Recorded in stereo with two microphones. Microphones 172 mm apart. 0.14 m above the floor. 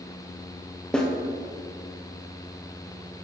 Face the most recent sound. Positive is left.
turn(degrees=5)  # may be behind; listen again after turning